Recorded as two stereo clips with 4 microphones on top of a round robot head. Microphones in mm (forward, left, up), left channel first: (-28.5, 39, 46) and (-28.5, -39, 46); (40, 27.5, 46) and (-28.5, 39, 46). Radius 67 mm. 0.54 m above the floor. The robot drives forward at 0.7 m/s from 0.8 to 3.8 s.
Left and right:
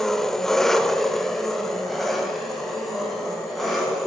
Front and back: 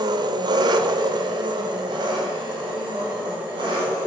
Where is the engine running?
175° left, 1.0 m; by 4.1 s straight behind, 3 m.